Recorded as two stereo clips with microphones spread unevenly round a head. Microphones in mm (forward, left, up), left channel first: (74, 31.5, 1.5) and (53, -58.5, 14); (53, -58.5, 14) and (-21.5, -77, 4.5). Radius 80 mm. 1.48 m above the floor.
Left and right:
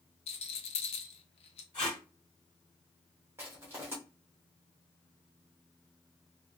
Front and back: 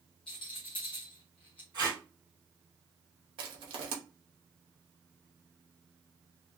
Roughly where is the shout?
I don't hear a shout.